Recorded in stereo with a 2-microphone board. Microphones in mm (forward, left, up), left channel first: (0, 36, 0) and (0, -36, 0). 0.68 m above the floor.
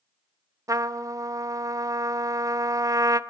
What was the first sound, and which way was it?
A trumpet, 50° right (ahead or behind).